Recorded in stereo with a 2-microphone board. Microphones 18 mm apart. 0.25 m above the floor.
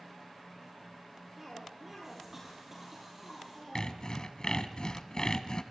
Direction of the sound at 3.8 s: 50° left (ahead or behind).